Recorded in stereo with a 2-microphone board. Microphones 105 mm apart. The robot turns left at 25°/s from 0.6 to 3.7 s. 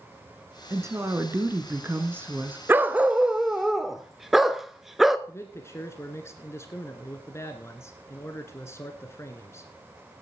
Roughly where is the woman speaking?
Right.